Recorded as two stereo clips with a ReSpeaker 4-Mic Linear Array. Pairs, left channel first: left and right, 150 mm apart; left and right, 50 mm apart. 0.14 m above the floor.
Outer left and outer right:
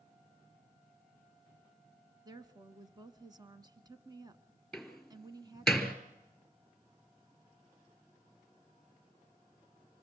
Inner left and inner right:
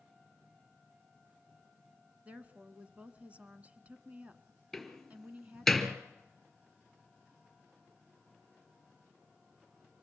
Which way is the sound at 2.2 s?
25° right (ahead or behind).